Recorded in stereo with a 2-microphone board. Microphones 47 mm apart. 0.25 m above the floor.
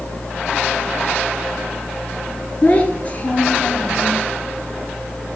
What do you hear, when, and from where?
2.6 s a child speaking: 30° left (ahead or behind), 2.5 m